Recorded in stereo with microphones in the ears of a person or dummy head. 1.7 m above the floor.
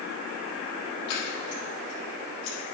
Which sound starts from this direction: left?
Scissors, at 1.1 s.